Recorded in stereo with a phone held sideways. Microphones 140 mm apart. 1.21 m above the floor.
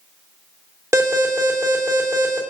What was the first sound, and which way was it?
An alarm, 20° right (ahead or behind).